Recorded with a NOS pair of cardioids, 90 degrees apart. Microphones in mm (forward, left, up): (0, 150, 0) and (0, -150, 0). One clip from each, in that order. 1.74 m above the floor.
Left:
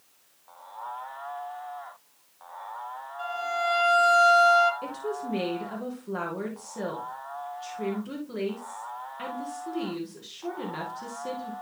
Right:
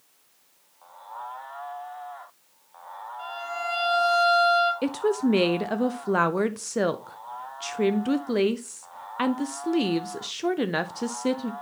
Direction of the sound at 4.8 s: 70° right.